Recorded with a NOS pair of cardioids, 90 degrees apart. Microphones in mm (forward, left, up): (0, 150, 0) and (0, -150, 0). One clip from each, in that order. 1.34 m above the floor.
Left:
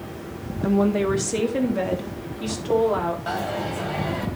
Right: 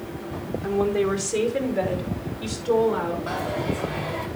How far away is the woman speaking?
About 1.7 m.